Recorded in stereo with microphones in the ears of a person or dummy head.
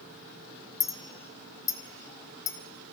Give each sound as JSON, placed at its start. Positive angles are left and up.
{"t": 0.8, "sound": "a clink", "side_deg": 25, "distance_m": 1.0}